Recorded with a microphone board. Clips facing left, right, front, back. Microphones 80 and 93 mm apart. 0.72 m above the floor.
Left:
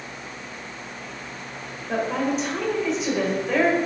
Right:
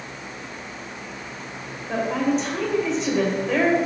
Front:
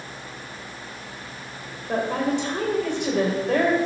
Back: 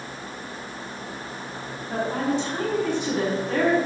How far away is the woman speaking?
About 2.5 m.